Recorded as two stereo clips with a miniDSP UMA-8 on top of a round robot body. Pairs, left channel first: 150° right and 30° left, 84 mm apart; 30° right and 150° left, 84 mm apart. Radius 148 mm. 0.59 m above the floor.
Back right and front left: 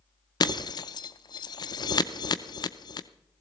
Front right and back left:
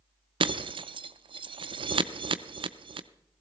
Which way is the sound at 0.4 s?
170° left.